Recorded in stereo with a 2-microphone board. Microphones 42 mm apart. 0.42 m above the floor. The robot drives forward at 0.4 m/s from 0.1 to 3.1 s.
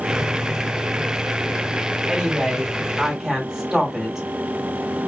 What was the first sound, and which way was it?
A woman speaking, 15° right (ahead or behind).